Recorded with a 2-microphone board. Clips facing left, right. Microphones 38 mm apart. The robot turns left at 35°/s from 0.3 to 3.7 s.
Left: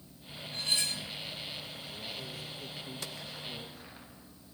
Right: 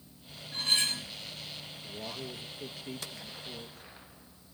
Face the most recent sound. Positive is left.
turn(degrees=175)